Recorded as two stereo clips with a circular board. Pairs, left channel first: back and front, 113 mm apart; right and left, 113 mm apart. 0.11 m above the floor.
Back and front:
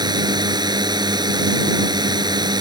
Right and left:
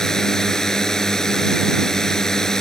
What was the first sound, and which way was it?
A drone, 5° right.